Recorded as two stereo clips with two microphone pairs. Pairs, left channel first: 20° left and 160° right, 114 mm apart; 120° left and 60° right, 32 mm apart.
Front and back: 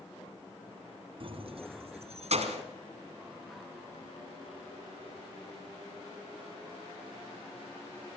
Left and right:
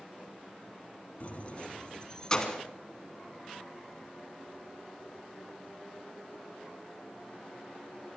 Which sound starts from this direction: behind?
Keys jangling, at 1.2 s.